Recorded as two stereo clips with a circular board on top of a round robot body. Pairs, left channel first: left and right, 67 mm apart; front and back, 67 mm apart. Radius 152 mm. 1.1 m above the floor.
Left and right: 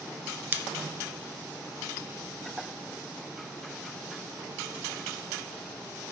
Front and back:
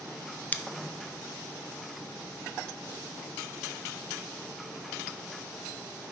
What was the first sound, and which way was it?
Scissors, 50° right.